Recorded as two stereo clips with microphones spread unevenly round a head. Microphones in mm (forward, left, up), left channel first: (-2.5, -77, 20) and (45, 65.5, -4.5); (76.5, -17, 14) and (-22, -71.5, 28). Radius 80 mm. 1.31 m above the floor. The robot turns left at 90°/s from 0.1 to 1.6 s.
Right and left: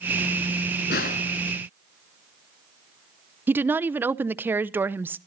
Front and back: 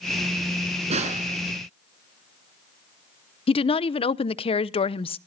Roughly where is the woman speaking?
Ahead.